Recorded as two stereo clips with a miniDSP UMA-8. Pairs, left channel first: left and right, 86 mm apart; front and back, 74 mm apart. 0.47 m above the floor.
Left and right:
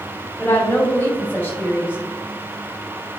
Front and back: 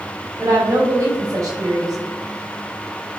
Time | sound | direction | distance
0.4 | a woman speaking | 155° left | 3 m